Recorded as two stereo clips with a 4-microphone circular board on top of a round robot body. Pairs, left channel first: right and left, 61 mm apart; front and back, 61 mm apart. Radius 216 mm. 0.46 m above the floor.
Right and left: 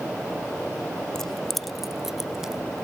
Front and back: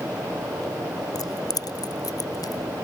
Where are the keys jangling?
5° right; by 2.6 s 10° left.